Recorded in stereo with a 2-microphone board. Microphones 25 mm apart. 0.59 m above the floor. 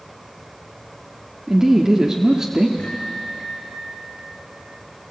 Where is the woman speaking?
25° right (ahead or behind), 1.2 m.